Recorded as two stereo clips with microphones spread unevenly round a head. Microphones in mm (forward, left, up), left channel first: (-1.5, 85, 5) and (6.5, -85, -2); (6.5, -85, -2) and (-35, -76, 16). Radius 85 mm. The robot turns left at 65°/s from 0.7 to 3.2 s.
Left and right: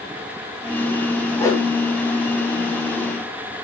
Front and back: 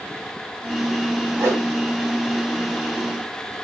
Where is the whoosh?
170° left, 1.1 m; by 1.7 s 150° left, 1.1 m.